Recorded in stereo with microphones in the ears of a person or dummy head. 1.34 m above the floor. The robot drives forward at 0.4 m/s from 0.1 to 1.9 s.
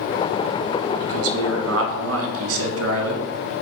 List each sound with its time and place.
1.0 s a man speaking: 70° right (ahead or behind), 1.2 m